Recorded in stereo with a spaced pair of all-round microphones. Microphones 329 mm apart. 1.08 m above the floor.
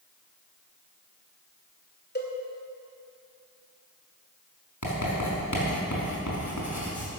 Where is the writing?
60° left (ahead or behind), 5 m.